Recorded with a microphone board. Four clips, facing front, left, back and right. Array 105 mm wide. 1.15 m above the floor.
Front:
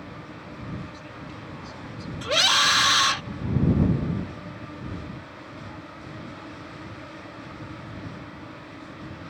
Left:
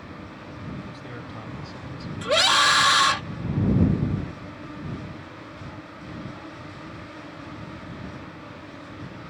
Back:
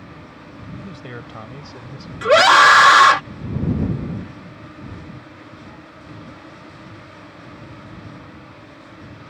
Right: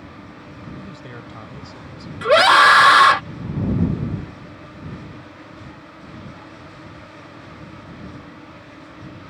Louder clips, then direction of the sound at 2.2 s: Right 10 dB, back 14 dB; 145° right.